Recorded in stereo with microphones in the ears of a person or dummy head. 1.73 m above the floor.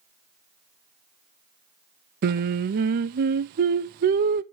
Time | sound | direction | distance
2.2 | singing | 50° right (ahead or behind) | 0.7 m